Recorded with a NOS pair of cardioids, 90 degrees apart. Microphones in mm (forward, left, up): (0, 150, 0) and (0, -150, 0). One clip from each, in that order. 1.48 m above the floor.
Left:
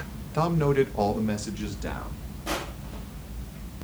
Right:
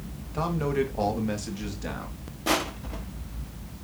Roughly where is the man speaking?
Ahead left.